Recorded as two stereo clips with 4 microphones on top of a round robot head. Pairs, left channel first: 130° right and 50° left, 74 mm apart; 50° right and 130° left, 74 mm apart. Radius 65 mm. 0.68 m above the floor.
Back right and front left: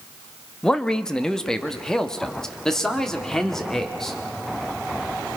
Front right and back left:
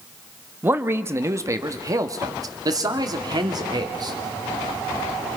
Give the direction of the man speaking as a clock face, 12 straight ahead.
7 o'clock.